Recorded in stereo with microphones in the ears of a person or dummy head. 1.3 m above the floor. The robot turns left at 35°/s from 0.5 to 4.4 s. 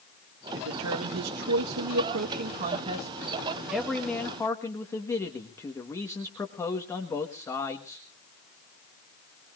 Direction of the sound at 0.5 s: 60° right.